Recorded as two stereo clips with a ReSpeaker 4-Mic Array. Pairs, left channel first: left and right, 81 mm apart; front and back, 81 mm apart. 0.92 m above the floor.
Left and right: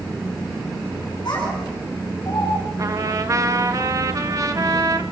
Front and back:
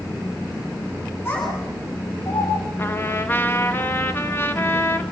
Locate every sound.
1.2 s a child speaking: 60° left, 5.5 m; by 2.5 s 45° left, 5 m
2.8 s a trumpet: 55° right, 1.5 m